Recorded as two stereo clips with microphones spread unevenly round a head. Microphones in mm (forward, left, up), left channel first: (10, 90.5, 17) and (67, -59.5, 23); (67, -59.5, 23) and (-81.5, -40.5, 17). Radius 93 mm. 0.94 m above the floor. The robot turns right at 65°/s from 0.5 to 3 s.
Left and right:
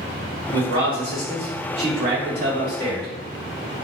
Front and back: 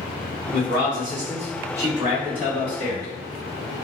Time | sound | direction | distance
0.5 | a man speaking | 155° left | 1.5 m